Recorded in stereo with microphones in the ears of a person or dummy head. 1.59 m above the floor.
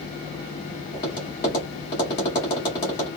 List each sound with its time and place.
0.9 s tapping: 20° left (ahead or behind), 1.2 m